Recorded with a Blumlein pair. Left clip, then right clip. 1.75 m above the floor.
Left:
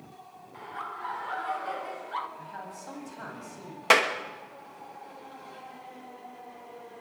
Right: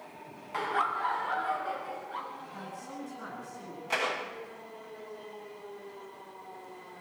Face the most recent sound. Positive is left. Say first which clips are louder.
# left 9 dB
turn(degrees=50)